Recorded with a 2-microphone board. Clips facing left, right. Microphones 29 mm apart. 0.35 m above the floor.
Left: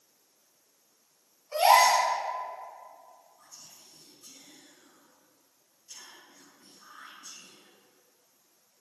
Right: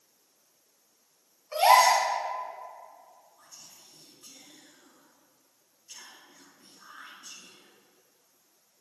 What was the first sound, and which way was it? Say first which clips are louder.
A gasp: right 1 dB; 30° right (ahead or behind).